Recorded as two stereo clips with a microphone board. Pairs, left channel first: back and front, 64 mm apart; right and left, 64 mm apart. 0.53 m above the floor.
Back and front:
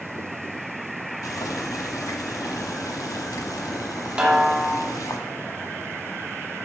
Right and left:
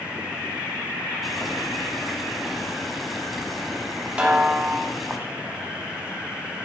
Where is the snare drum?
55° left, 0.9 m.